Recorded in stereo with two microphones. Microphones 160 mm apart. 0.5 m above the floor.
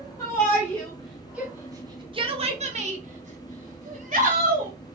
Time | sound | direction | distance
0.2 | a shout | 20° left (ahead or behind) | 1.2 m